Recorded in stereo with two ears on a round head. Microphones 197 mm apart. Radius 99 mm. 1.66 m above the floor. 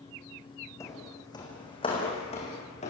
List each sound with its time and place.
0.8 s footsteps: 15° left (ahead or behind), 6 m; by 2.9 s 30° left (ahead or behind), 8 m